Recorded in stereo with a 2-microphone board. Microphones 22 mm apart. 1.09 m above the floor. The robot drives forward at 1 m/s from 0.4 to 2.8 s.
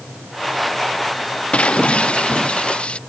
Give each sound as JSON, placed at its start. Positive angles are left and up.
{"t": 1.5, "sound": "breaking glass", "side_deg": 65}